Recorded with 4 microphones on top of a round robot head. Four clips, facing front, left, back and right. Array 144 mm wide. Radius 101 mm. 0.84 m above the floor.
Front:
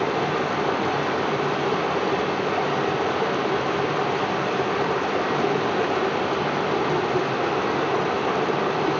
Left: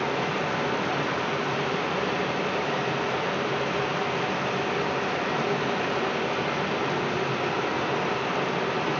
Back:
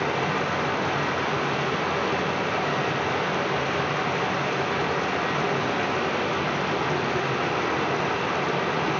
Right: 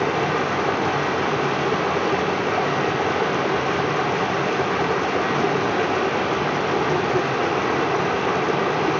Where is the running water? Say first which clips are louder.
Right 6 dB, front 2 dB; 50° right, 2 m.